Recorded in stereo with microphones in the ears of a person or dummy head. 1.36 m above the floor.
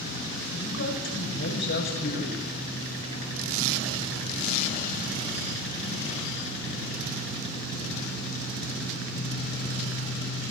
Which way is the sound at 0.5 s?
60° left (ahead or behind).